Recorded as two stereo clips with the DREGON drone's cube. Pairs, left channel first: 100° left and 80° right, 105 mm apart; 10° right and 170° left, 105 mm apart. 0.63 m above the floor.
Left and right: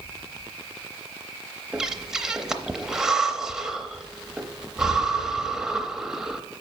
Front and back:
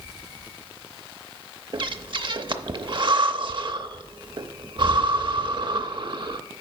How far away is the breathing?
About 0.6 m.